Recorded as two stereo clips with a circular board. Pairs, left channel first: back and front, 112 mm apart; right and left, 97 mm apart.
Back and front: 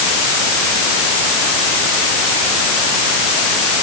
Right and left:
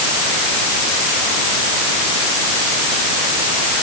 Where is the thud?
I don't hear a thud.